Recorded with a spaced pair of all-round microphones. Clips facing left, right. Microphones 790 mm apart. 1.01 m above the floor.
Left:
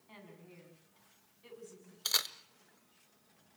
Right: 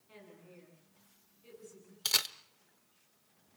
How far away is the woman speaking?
About 7.5 m.